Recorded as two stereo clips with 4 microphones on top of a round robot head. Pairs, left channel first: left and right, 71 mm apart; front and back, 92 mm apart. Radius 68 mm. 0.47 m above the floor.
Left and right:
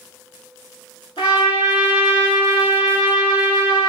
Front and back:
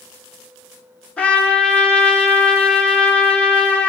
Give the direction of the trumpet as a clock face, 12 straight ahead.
9 o'clock.